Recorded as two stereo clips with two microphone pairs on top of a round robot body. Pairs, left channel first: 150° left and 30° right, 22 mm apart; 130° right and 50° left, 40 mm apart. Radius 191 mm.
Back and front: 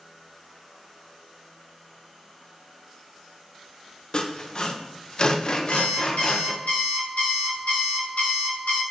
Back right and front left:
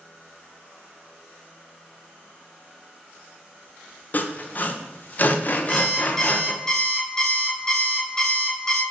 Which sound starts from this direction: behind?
Sawing, at 4.1 s.